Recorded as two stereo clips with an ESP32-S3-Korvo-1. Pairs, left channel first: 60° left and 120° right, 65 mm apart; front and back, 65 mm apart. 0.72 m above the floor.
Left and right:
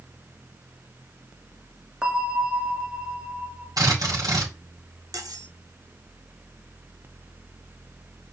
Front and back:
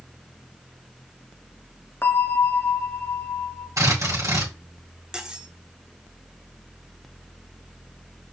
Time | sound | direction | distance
2.0 | a bell | 50° right | 1.5 m
3.8 | a drill | 140° right | 5 m
5.1 | cutlery clinking | 100° right | 1.2 m